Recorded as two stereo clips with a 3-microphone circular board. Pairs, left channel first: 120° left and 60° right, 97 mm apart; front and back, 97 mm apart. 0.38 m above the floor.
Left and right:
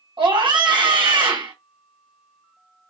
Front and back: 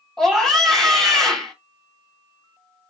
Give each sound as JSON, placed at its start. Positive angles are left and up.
{"t": 0.2, "sound": "a scream", "azimuth_deg": -85, "distance_m": 2.0}